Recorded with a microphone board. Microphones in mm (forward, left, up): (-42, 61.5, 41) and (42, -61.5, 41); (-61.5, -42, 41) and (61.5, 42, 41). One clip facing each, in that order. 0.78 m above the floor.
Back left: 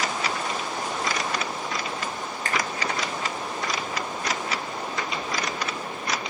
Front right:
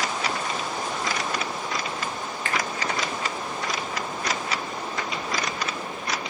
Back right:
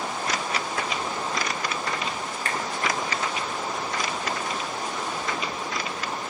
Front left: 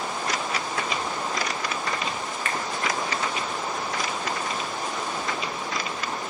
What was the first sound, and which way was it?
A finger snap, 170° left.